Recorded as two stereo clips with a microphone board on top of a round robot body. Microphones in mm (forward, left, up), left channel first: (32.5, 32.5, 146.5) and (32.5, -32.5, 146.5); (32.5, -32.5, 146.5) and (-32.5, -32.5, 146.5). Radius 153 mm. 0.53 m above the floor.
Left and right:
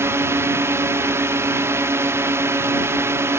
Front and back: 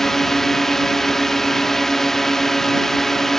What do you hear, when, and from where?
0.0 s a drone: 80° right